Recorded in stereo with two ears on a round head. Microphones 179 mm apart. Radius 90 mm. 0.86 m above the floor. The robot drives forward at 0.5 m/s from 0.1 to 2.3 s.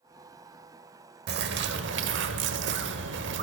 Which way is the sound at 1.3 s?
55° right (ahead or behind).